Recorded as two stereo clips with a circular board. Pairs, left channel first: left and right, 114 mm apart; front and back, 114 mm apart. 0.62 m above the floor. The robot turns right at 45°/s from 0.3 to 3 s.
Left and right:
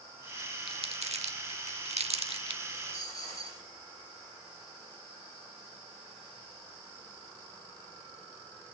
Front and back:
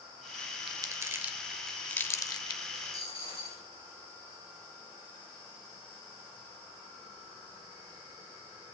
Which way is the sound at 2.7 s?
20° left.